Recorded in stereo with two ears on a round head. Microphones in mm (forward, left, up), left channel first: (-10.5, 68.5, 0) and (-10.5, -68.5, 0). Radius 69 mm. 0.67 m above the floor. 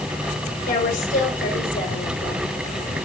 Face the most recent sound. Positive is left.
turn(degrees=55)  # may be behind; listen again after turning